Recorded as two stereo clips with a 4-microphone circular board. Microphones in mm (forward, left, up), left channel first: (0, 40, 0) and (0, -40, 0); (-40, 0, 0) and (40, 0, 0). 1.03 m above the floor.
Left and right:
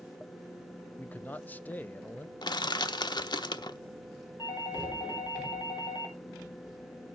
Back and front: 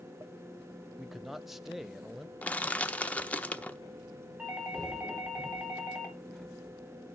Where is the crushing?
110° left, 0.9 m.